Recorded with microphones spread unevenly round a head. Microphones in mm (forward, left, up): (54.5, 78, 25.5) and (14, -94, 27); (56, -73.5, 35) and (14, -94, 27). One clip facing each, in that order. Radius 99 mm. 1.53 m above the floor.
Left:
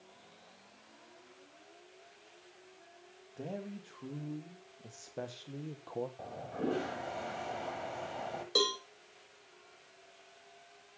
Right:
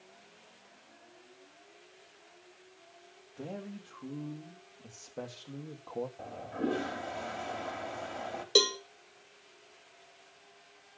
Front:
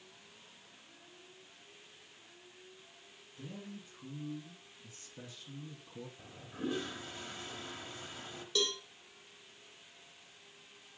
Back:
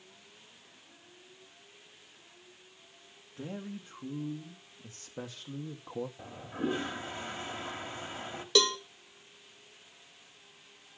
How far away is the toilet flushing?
About 1.4 m.